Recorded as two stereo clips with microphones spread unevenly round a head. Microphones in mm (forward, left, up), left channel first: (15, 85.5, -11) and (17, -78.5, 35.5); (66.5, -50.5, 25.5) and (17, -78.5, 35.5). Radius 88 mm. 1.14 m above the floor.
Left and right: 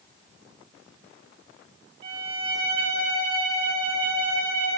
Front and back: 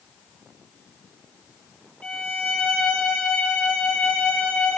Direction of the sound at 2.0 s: 35° right.